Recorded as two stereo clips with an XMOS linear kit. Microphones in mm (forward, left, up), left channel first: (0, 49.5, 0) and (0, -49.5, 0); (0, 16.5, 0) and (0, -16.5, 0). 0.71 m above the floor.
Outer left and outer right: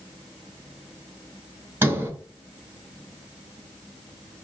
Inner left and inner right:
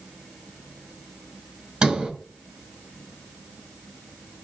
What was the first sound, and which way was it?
A sliding door, 20° right (ahead or behind).